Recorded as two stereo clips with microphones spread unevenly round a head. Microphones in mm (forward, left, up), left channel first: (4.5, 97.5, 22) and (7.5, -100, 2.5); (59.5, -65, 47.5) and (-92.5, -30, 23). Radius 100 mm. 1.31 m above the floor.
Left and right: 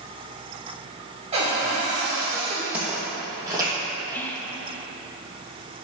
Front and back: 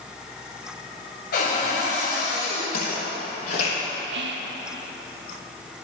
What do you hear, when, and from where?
1.3 s a cupboard door: 25° right, 3 m
2.7 s footsteps: 5° right, 2.5 m; by 3.8 s 15° right, 3 m
4.1 s whispering: 175° left, 0.6 m